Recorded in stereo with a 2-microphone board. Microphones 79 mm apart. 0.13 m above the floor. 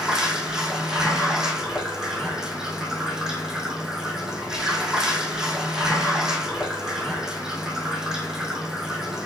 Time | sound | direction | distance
0.0 | running water | 5° right (ahead or behind) | 2.5 m